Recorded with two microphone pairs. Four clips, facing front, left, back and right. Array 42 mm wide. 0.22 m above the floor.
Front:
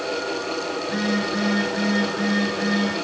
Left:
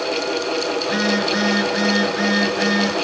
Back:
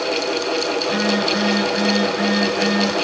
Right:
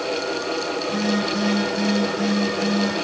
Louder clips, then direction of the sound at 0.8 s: Left 2 dB, back 4 dB; 90° left.